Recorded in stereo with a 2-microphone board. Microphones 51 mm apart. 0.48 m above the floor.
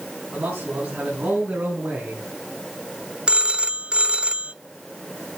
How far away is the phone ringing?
About 0.5 m.